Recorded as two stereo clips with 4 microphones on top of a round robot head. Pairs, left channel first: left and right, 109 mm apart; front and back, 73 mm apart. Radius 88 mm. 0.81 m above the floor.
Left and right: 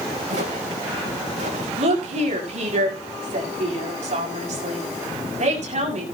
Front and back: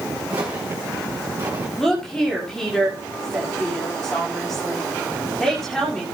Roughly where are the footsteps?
Behind right.